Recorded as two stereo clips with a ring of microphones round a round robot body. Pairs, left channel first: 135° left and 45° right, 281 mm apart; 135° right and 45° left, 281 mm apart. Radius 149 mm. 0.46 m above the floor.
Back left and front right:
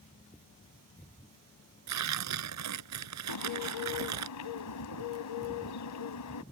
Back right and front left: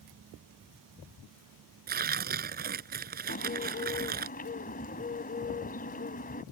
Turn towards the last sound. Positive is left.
turn(degrees=165)